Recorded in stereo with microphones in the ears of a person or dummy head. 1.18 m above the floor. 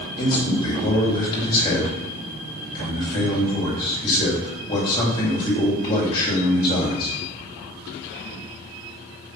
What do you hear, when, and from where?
0.2 s a man speaking: 25° left (ahead or behind), 2.5 m